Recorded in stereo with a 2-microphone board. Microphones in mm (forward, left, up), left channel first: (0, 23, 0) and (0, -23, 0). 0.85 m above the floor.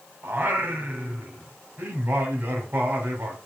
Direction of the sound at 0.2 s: 50° right (ahead or behind).